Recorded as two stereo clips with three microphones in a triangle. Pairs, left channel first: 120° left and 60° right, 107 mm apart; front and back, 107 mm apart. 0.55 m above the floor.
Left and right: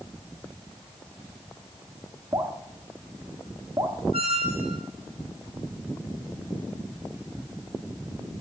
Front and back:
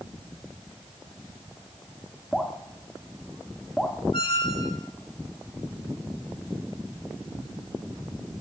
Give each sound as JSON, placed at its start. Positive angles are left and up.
{"t": 2.3, "sound": "dripping", "azimuth_deg": -80, "distance_m": 1.3}
{"t": 4.1, "sound": "a squeak", "azimuth_deg": -40, "distance_m": 0.8}